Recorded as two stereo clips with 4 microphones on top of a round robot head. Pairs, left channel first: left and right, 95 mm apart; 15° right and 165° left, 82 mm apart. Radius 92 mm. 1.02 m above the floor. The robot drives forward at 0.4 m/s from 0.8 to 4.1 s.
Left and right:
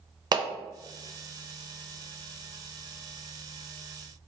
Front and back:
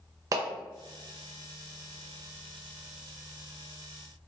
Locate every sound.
0.3 s a clap: 140° right, 0.6 m